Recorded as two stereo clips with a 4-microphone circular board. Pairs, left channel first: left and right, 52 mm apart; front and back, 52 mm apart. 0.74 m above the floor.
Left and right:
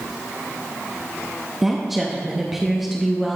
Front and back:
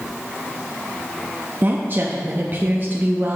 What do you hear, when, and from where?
1.6 s a woman speaking: 175° right, 0.6 m